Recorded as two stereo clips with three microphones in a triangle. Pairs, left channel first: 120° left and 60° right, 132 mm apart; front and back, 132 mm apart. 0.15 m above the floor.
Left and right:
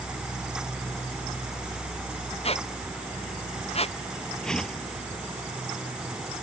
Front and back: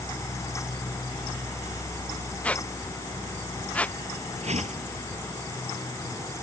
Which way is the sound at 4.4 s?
155° right.